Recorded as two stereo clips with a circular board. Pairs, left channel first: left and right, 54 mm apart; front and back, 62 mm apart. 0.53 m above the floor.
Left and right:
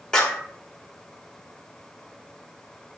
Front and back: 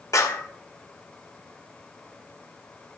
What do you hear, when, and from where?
0.1 s a clap: 15° left, 1.5 m